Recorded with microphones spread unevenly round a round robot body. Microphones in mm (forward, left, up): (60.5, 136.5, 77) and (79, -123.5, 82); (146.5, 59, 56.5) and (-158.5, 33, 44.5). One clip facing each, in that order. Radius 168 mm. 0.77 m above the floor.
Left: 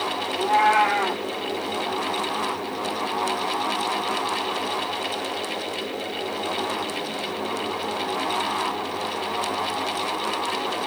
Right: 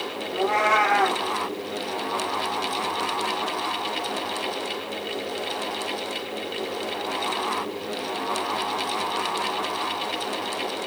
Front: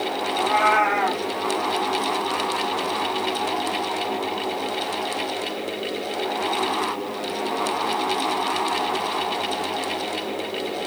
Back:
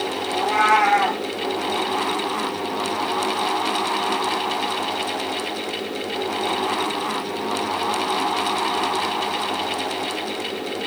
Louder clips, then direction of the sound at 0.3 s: Even, back 1 dB; 135° right.